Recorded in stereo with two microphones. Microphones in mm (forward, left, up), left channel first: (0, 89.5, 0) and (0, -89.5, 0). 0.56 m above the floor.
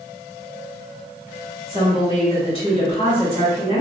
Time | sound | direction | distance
1.7 | a woman speaking | 30° left (ahead or behind) | 1.4 m